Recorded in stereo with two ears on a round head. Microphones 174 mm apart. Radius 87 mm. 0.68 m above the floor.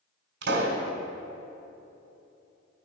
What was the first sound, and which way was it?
A pop, 65° right (ahead or behind).